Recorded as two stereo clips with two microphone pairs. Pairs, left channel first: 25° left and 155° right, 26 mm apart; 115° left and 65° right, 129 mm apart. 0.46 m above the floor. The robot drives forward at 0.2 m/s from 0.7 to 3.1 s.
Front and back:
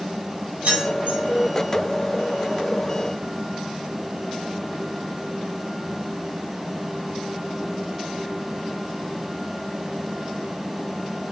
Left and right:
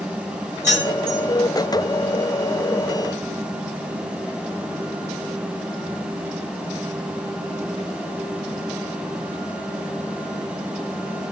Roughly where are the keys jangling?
Behind right.